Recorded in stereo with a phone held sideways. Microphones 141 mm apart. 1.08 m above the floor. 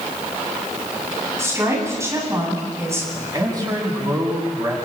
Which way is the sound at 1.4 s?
20° right (ahead or behind).